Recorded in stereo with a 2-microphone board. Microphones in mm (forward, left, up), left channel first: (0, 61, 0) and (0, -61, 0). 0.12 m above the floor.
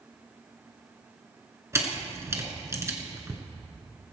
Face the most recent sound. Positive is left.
turn(degrees=-25)  # may be behind; listen again after turning